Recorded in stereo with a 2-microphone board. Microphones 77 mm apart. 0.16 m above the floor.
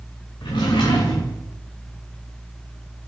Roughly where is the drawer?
Left.